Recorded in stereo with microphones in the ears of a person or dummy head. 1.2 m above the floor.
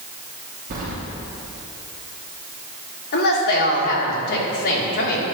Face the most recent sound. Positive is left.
turn(degrees=50)  # may be behind; listen again after turning